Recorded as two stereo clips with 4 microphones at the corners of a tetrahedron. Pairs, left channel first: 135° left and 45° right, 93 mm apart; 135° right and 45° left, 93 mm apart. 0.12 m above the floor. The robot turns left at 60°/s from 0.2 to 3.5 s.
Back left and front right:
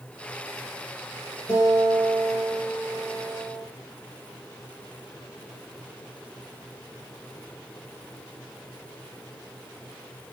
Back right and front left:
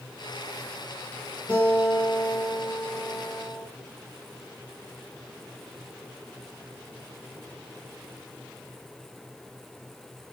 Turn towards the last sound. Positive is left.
turn(degrees=45)